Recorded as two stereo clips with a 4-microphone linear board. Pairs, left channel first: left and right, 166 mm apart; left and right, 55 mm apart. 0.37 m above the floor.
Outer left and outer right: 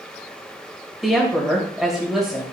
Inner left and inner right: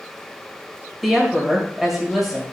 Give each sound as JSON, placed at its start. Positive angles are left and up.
{"t": 1.0, "sound": "a woman speaking", "side_deg": -5, "distance_m": 2.0}